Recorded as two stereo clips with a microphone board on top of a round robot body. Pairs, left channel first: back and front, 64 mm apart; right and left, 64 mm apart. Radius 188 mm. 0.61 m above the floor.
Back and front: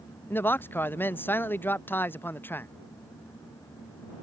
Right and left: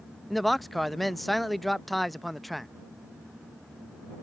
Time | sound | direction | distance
0.3 | a man speaking | 175° right | ?